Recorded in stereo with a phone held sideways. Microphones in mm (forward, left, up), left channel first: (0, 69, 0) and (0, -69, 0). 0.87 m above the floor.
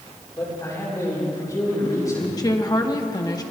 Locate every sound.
0.4 s a man speaking: 25° left (ahead or behind), 6.5 m
2.4 s a woman speaking: 25° left (ahead or behind), 1.2 m